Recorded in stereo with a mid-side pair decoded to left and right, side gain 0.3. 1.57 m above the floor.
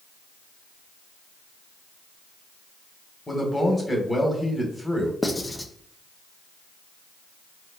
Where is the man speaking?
25° left, 2.0 m.